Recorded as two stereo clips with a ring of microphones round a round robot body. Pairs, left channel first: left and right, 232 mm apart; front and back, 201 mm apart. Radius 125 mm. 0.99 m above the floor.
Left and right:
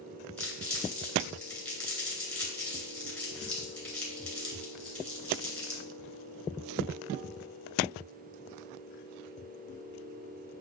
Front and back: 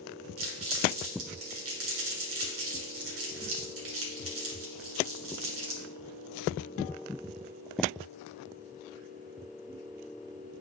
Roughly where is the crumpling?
Behind.